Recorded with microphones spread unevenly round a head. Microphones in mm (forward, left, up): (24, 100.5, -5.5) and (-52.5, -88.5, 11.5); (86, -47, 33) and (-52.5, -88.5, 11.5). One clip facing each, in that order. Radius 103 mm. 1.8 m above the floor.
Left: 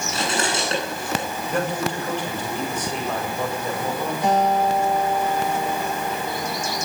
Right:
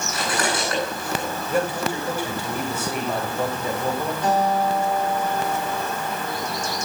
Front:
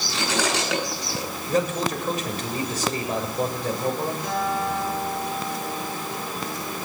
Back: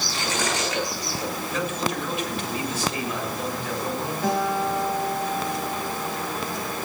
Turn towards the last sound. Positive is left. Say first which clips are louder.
# left 2 dB, back 5 dB
turn(degrees=150)